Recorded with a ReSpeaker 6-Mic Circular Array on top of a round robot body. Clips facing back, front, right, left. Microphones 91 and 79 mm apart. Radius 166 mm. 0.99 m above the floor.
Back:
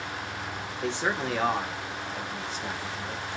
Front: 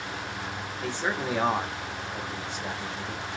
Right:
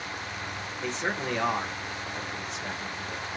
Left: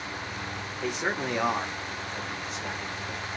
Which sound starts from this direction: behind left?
A man speaking, at 0.8 s.